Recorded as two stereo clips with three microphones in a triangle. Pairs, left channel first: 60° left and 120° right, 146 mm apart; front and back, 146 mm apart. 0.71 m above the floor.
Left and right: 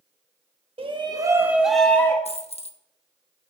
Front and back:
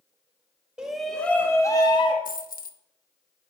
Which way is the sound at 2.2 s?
15° left.